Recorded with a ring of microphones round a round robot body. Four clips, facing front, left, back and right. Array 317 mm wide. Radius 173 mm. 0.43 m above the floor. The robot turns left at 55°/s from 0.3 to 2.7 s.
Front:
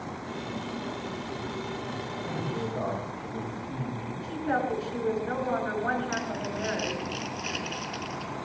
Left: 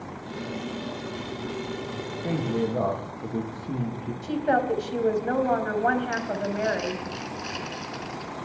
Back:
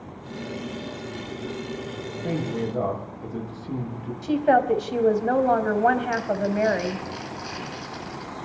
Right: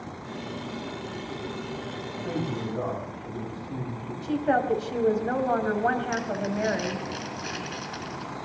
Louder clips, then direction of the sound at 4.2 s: Even, back 10 dB; 175° left.